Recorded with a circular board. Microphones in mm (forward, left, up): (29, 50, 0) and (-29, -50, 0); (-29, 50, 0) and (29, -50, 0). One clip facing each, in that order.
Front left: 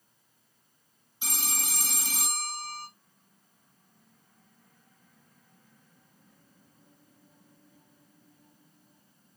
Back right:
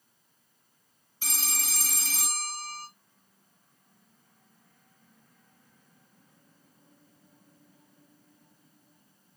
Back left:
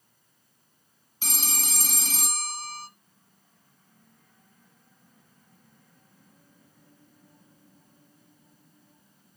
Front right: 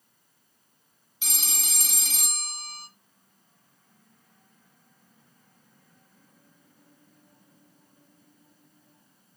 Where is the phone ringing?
120° left, 0.7 m.